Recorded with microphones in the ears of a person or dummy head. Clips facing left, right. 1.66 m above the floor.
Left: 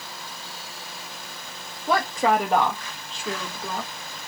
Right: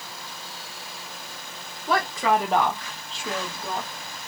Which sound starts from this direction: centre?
A woman speaking, at 1.9 s.